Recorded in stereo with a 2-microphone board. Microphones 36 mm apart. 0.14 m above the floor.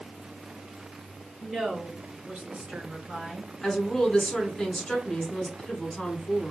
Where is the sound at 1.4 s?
10° right (ahead or behind), 1.2 m; by 3.5 s 35° right (ahead or behind), 1.9 m.